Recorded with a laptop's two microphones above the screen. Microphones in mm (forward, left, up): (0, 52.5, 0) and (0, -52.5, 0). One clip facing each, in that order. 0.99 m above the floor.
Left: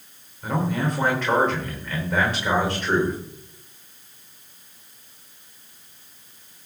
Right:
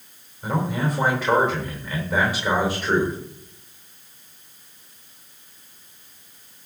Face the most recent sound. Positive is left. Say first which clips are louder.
# even
turn(degrees=-5)  # may be behind; listen again after turning